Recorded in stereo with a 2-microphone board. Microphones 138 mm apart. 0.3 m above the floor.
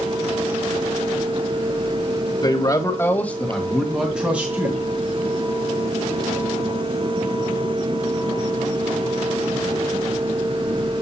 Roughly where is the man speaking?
Left.